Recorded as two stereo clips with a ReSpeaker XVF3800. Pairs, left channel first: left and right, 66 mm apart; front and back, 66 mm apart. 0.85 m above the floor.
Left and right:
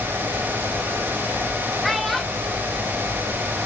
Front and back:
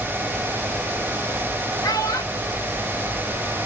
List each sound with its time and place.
1.8 s a child speaking: straight ahead, 1.5 m